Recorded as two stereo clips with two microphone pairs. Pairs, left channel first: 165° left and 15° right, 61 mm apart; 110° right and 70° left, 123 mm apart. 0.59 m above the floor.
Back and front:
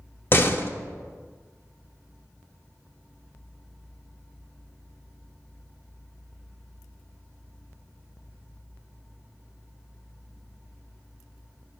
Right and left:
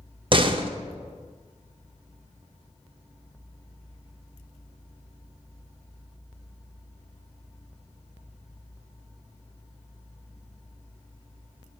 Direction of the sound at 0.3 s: 110° left.